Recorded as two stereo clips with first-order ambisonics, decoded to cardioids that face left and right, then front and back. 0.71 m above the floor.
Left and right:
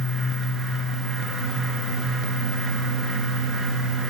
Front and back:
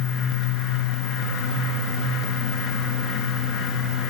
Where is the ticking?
I don't hear ticking.